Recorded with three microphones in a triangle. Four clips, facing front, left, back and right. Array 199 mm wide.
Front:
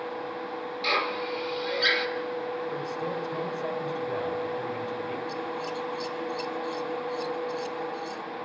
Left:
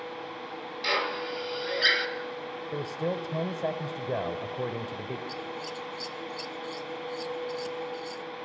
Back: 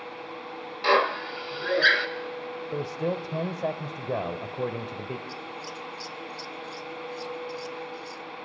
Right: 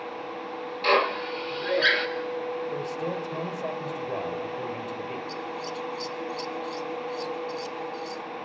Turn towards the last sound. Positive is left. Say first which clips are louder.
# right 3 dB, front 6 dB
turn(degrees=75)